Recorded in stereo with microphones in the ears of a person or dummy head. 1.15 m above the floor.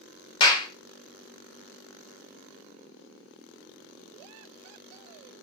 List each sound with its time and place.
0.4 s a clap: 30° left (ahead or behind), 0.8 m